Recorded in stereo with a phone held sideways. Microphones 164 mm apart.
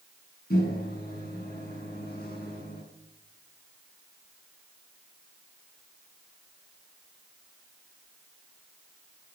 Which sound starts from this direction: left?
A microwave, at 0.5 s.